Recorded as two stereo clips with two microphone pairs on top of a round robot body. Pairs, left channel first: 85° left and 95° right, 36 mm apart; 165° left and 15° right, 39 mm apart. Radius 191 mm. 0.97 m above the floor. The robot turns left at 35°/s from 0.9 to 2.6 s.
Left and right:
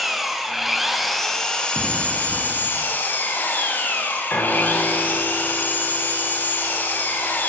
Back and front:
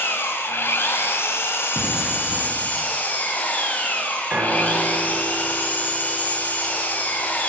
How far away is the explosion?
About 0.5 m.